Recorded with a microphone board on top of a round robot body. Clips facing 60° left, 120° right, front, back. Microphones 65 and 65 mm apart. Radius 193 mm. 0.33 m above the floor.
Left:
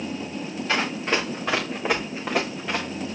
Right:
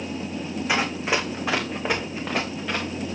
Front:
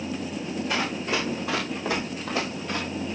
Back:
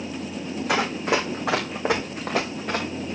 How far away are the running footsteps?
About 1.8 m.